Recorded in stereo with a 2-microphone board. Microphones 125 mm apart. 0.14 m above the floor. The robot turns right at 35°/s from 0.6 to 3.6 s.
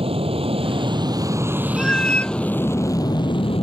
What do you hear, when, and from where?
0.0 s an aircraft: 55° right; by 3.6 s 50° left
1.8 s a cat meowing: 5° left (ahead or behind); by 2.4 s 15° left (ahead or behind)